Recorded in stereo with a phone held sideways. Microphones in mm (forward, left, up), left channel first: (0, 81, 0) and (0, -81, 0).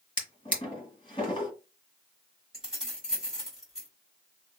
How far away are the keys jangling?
About 2 m.